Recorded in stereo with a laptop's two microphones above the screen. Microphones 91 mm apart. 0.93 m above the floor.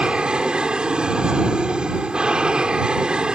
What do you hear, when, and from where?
0.0 s an aircraft: 10° right (ahead or behind)